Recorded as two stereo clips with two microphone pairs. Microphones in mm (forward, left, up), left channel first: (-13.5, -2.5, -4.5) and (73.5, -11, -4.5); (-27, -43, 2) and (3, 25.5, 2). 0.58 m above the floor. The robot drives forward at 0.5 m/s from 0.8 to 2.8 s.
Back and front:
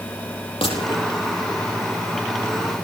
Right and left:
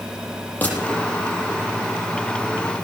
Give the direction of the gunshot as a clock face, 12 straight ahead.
6 o'clock.